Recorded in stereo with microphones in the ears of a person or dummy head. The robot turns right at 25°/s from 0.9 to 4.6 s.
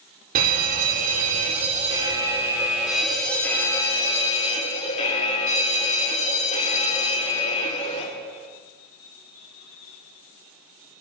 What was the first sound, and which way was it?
A fire alarm, 55° right.